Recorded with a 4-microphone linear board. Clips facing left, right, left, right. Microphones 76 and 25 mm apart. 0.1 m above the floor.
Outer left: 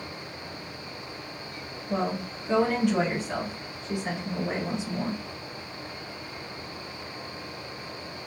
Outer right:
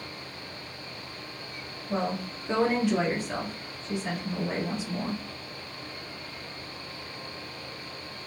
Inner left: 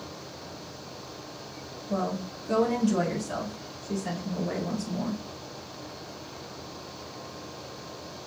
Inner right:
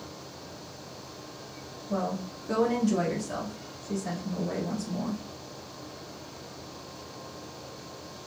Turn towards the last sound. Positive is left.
turn(degrees=35)  # may be behind; listen again after turning